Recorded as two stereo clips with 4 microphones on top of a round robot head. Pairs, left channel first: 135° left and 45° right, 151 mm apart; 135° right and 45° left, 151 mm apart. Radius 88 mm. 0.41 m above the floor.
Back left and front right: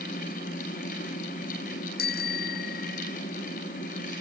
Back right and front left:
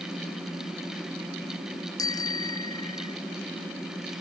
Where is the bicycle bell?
155° left; by 3.1 s 160° left.